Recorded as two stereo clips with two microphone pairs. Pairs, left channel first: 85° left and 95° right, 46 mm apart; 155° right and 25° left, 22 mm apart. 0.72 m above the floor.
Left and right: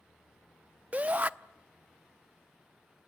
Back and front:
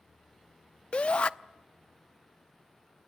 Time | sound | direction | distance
0.9 | a shout | 140° right | 0.7 m